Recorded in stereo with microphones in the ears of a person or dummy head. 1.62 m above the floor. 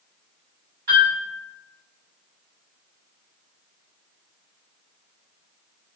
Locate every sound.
0.9 s a piano: 45° right (ahead or behind), 1.6 m